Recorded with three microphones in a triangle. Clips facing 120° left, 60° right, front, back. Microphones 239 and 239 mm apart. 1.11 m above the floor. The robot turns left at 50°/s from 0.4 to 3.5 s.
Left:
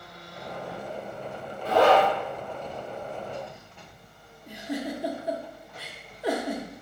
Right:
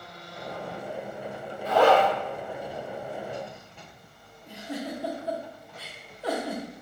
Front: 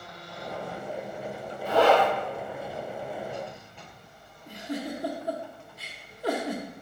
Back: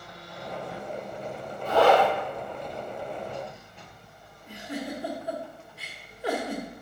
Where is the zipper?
80° left, 2.5 m; by 2.1 s 60° left, 2.5 m.